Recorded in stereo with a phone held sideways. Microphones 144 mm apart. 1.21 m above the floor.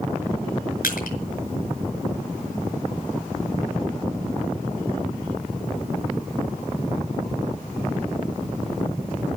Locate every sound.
0.8 s crushing: 80° left, 5.5 m